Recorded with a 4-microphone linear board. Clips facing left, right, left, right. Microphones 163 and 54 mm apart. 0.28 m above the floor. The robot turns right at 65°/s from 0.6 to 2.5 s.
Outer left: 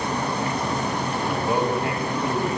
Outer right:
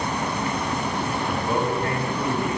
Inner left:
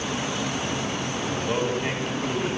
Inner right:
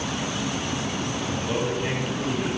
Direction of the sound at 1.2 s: 20° left (ahead or behind).